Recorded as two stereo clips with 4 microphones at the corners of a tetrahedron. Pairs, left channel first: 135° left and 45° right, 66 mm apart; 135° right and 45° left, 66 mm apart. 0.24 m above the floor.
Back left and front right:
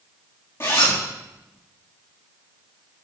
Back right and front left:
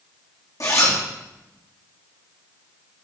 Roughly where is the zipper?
Behind.